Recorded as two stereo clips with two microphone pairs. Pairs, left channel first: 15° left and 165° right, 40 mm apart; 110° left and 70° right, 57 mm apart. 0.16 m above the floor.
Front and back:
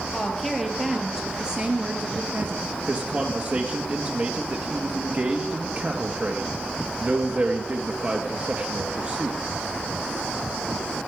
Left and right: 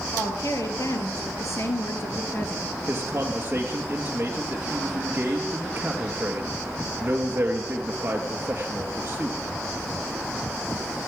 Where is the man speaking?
125° right, 2.5 m.